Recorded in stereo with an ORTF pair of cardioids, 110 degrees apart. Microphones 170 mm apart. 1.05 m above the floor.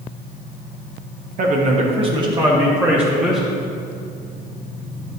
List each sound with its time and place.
1.4 s a man speaking: 55° right, 1.1 m; by 3.5 s 5° right, 1.7 m